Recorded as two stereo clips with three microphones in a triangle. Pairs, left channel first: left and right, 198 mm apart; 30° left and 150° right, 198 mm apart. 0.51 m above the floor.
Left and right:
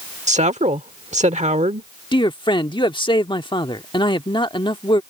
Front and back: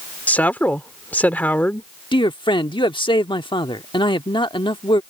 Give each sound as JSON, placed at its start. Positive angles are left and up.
{"t": 0.3, "sound": "a woman speaking", "azimuth_deg": -50}
{"t": 2.1, "sound": "a man speaking", "azimuth_deg": 60}